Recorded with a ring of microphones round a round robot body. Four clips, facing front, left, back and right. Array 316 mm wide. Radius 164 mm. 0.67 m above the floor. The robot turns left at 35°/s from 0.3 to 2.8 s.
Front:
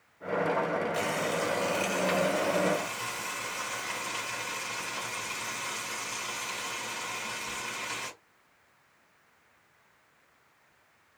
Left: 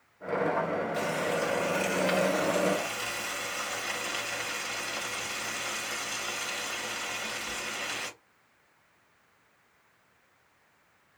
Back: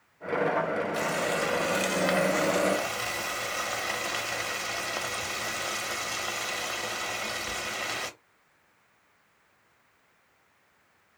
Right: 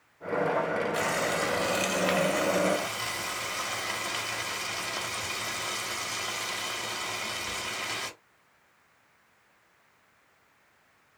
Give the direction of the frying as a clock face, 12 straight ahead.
4 o'clock.